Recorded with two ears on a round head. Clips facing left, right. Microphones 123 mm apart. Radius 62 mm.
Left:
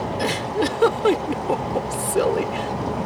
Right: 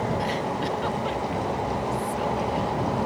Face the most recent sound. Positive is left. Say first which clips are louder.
# left 4 dB
turn(degrees=85)